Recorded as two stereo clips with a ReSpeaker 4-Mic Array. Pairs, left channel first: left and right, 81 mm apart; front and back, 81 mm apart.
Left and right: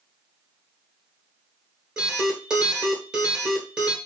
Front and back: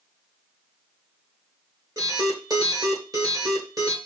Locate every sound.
2.0 s an alarm: 165° right, 1.7 m